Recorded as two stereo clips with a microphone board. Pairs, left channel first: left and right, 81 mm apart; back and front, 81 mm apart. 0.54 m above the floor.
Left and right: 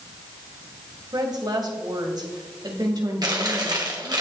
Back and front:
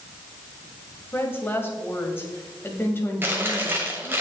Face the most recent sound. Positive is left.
turn(degrees=-60)